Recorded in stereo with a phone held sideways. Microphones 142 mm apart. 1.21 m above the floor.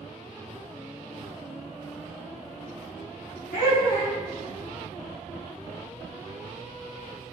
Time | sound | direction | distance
3.5 | laughter | 75° left (ahead or behind) | 1.7 m